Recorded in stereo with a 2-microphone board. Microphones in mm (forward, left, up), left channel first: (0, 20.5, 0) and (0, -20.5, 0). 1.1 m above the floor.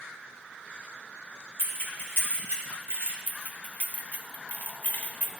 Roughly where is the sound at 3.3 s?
Left.